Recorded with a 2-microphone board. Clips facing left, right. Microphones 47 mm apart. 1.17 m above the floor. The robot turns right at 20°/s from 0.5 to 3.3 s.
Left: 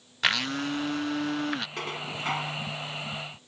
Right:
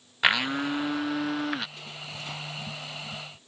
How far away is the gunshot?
I don't hear a gunshot.